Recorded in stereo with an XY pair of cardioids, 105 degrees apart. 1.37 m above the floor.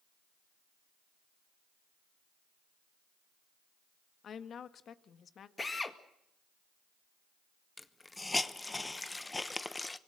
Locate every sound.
4.2 s a woman speaking: 55° left, 1.8 m
5.6 s a drill: 25° left, 2 m
7.8 s a hiss: 15° left, 1.1 m